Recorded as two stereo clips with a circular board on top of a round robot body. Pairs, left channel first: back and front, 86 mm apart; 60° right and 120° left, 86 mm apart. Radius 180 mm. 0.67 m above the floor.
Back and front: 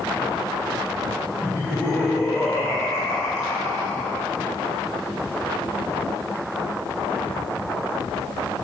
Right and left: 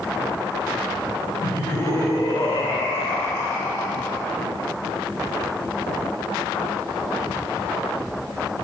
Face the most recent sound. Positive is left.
turn(degrees=-120)